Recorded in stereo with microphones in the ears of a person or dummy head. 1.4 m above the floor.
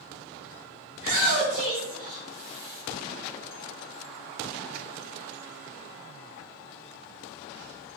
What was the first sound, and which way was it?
A shout, 70° right (ahead or behind).